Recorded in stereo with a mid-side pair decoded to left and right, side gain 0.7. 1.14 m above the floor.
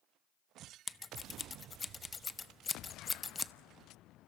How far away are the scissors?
About 0.7 m.